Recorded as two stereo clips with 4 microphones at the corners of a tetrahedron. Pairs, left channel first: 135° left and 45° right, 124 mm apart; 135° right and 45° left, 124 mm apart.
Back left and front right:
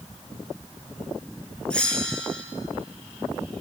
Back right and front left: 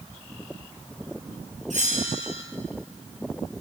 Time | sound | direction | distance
1.7 | a bell | 55° left | 4.5 m